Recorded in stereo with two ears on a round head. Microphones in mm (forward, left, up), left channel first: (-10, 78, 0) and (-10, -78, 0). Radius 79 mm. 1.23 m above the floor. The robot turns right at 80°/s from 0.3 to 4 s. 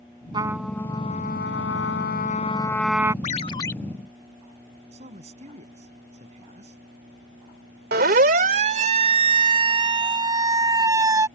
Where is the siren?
55° right (ahead or behind); by 11.3 s 20° right (ahead or behind).